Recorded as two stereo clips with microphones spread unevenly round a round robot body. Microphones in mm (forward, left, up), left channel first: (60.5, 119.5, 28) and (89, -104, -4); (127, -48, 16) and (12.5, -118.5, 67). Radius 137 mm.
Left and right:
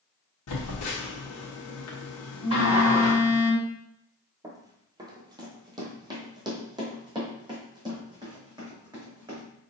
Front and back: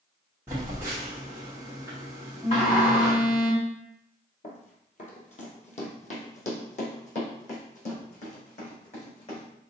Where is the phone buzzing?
125° left, 1.0 m.